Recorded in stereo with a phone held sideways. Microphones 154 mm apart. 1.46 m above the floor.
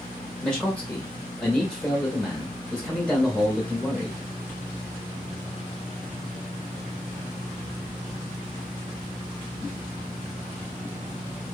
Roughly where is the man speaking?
Centre.